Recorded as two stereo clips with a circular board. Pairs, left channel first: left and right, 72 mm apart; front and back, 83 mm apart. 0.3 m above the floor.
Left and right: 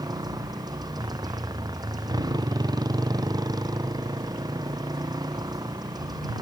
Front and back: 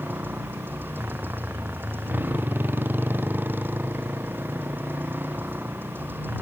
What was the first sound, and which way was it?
A motorcycle, 115° right.